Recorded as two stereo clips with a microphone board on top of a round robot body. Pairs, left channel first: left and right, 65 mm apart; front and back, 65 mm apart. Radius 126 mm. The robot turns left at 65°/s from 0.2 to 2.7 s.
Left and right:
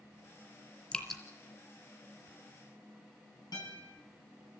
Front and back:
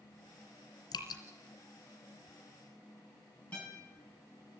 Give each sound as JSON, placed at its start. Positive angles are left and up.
{"t": 0.9, "sound": "dripping", "azimuth_deg": 20, "distance_m": 2.5}
{"t": 3.5, "sound": "a guitar", "azimuth_deg": 70, "distance_m": 9.0}